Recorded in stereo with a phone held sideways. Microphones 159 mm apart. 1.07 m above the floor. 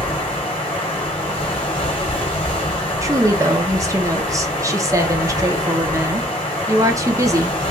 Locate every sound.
0.0 s running water: 35° left (ahead or behind), 1.4 m
3.0 s a woman speaking: 20° right (ahead or behind), 0.9 m